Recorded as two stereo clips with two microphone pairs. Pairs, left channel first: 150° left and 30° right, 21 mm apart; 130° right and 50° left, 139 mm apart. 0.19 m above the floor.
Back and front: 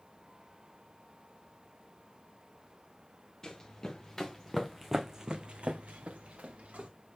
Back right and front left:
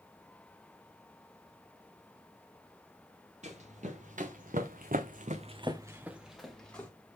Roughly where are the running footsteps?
Left.